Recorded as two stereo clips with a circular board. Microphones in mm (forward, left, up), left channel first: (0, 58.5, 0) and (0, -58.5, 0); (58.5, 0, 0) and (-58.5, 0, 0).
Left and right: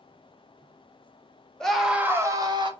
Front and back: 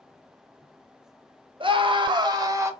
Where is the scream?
170° left, 0.8 m; by 2.7 s 125° right, 0.9 m.